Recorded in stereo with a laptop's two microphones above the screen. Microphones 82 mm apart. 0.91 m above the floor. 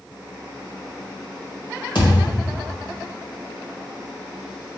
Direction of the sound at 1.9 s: 65° left (ahead or behind).